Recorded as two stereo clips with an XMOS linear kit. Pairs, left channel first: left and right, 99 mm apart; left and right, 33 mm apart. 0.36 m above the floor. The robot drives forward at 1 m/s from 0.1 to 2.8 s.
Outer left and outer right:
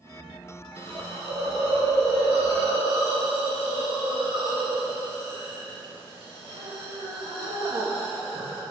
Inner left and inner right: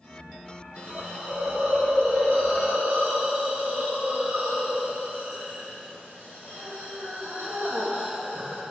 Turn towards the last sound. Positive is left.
turn(degrees=-70)  # may be behind; listen again after turning